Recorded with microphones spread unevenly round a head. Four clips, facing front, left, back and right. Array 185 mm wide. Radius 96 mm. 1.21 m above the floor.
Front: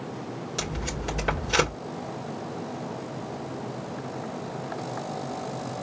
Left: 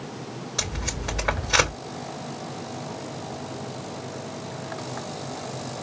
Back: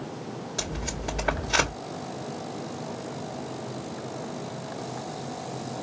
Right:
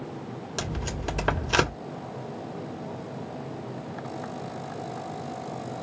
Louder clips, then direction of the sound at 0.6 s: Right 2 dB, front 1 dB; 70° right.